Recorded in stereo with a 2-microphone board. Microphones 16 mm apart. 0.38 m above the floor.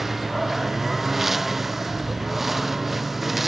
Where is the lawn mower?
20° right (ahead or behind); by 3.5 s 15° right (ahead or behind).